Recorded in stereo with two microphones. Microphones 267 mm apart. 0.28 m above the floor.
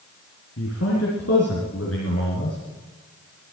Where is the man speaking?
65° left (ahead or behind), 3.5 m.